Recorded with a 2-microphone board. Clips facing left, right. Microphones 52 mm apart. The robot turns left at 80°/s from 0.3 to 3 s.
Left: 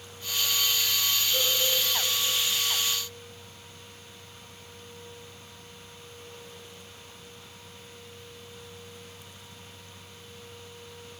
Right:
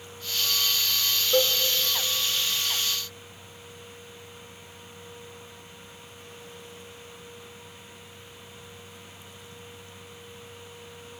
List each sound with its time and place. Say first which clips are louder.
1.3 s a cowbell: right 9 dB; 75° right (ahead or behind), 0.6 m; by 1.6 s 65° right (ahead or behind), 0.6 m